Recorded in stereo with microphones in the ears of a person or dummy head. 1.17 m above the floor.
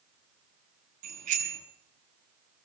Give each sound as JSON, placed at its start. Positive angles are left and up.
{"t": 1.0, "sound": "a bicycle bell", "side_deg": -45, "distance_m": 8.0}